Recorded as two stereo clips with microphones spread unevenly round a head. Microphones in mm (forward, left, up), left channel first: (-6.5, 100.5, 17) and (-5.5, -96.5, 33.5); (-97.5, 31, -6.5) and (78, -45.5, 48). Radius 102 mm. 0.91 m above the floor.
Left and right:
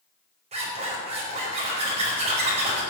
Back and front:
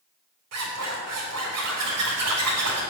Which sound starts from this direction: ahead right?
A zipper, at 0.5 s.